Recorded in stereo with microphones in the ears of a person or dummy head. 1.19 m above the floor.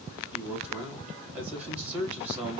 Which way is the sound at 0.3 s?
10° right (ahead or behind).